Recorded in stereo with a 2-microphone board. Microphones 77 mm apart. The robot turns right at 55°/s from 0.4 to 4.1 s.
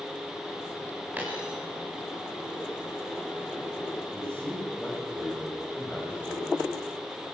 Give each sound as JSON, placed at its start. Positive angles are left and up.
{"t": 1.2, "sound": "a dropped coin", "side_deg": -20, "distance_m": 8.5}
{"t": 4.1, "sound": "a man speaking", "side_deg": 20, "distance_m": 9.5}